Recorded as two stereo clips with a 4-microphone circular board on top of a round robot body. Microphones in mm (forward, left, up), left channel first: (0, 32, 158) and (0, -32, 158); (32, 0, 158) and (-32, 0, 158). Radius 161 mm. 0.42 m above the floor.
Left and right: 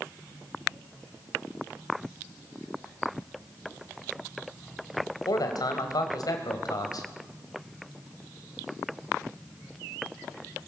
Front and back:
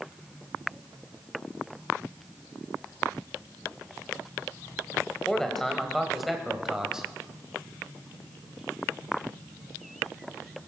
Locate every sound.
5.3 s a man speaking: 80° left, 3 m; by 7.1 s 100° left, 3.5 m